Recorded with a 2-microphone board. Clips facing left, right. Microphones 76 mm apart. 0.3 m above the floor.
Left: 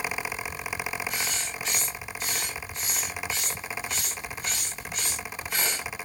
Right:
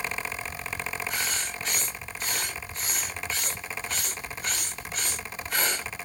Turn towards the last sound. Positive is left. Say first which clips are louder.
# right 1 dB
turn(degrees=-40)  # may be behind; listen again after turning